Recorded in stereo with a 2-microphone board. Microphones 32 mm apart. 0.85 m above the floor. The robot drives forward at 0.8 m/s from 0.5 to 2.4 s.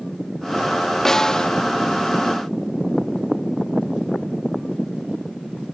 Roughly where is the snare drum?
Centre.